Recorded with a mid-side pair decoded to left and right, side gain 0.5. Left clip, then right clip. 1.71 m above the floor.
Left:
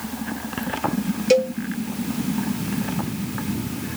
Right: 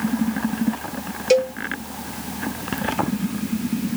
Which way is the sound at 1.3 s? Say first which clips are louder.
Even; straight ahead.